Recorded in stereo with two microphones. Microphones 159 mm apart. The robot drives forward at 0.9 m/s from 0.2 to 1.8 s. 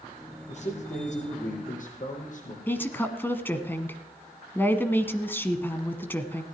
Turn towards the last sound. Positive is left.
turn(degrees=15)  # may be behind; listen again after turning